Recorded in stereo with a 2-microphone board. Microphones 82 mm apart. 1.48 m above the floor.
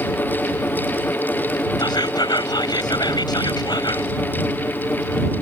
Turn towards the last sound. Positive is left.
turn(degrees=60)  # may be behind; listen again after turning